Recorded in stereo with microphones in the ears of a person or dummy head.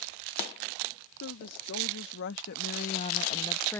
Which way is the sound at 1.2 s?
85° left.